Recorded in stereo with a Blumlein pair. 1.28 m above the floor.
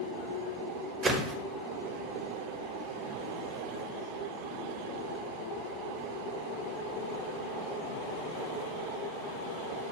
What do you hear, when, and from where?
1.0 s a whoosh: 15° right, 0.6 m